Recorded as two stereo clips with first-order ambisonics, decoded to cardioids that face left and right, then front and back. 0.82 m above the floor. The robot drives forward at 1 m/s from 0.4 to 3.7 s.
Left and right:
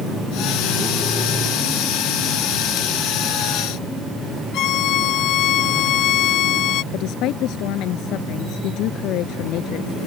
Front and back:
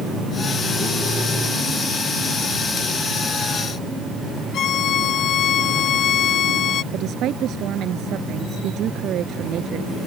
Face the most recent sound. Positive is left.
turn(degrees=130)